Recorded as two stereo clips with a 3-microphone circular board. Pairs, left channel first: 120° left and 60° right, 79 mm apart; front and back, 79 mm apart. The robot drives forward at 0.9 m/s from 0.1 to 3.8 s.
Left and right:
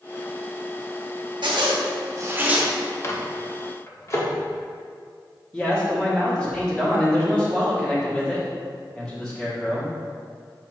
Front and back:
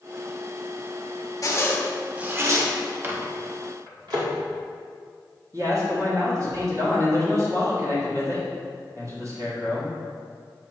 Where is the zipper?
45° right, 0.8 m; by 2.7 s 135° right, 0.8 m.